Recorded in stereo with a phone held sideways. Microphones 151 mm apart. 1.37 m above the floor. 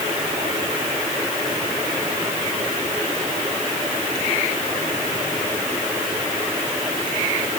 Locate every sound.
Only background noise.